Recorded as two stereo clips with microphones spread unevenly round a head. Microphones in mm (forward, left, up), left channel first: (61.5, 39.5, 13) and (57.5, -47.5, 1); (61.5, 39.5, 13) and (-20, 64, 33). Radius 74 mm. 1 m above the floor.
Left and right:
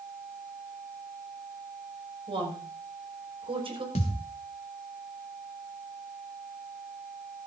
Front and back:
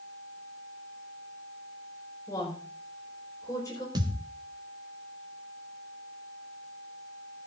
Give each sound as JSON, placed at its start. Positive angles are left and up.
{"t": 2.3, "sound": "a woman speaking", "azimuth_deg": -80, "distance_m": 5.5}
{"t": 4.0, "sound": "a thud", "azimuth_deg": 130, "distance_m": 2.0}